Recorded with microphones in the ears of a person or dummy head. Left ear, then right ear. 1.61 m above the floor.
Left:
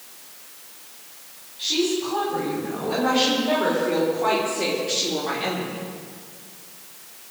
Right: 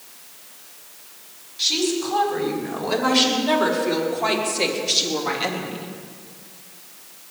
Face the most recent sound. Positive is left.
turn(degrees=-40)  # may be behind; listen again after turning